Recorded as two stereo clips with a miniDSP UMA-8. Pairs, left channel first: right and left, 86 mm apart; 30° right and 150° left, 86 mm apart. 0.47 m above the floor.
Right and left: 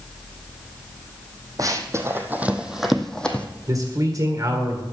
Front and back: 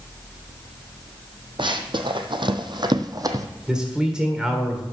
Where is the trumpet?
No trumpet in this recording.